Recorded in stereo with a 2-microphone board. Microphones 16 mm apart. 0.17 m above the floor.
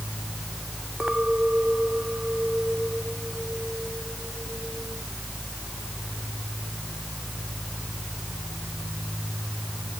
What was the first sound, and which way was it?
A clink, 70° right (ahead or behind).